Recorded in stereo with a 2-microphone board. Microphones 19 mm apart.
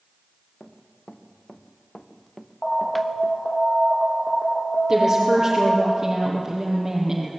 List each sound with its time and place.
0.6 s running footsteps: 85° left, 3 m; by 3.4 s 5° right (ahead or behind), 2 m
2.6 s an alarm: 60° left (ahead or behind), 6 m
4.9 s a woman speaking: 15° right (ahead or behind), 5 m